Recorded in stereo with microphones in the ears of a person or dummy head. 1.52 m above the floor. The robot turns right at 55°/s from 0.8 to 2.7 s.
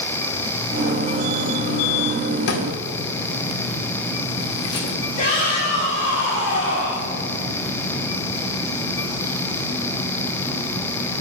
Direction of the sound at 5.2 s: 40° left (ahead or behind).